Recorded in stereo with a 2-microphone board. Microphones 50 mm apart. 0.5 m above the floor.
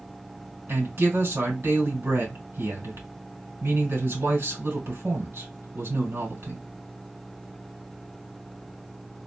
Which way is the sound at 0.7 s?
60° right (ahead or behind).